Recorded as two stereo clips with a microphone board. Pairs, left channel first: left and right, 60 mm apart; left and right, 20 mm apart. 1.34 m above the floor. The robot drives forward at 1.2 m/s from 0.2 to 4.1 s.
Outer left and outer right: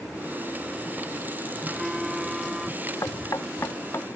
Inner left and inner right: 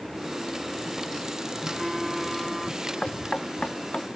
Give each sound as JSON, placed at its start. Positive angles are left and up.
{"t": 1.6, "sound": "a phone buzzing", "side_deg": -10}
{"t": 3.0, "sound": "knocking", "side_deg": 75}